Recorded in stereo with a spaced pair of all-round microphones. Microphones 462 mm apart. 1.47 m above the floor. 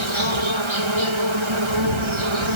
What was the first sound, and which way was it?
An insect, 85° right.